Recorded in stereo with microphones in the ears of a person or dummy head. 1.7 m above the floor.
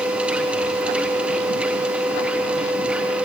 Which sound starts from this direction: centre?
A machine running, at 0.0 s.